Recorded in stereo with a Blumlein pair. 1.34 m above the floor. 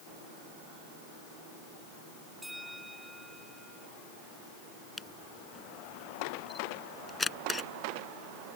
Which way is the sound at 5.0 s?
10° left.